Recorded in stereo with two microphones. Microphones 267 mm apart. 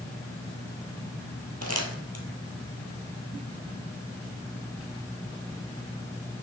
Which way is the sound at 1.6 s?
65° right (ahead or behind).